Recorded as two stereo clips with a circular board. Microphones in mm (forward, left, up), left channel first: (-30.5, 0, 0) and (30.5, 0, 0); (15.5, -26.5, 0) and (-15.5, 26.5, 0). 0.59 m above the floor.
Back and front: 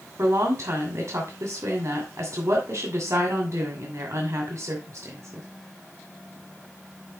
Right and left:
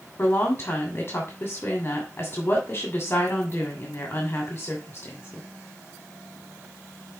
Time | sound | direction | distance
0.2 | a woman speaking | 10° right | 2.5 m